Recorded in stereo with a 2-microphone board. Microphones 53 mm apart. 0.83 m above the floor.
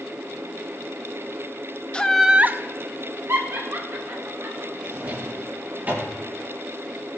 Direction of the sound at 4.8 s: 35° right (ahead or behind).